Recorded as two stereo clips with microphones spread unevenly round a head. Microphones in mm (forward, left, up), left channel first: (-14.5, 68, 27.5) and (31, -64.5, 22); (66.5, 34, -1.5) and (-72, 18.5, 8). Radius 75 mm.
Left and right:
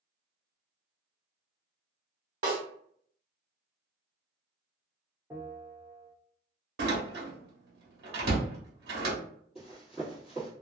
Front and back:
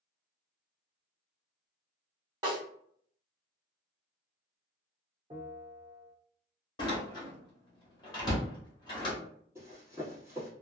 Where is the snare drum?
110° right, 1.4 m.